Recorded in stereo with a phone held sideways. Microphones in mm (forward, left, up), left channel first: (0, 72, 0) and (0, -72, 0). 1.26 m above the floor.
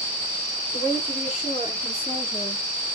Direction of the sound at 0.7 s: 40° left (ahead or behind).